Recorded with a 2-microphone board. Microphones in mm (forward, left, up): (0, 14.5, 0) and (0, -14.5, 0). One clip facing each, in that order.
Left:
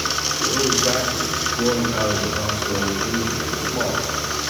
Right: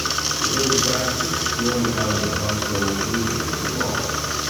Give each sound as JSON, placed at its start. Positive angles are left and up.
{"t": 0.4, "sound": "a man speaking", "side_deg": 65, "distance_m": 2.0}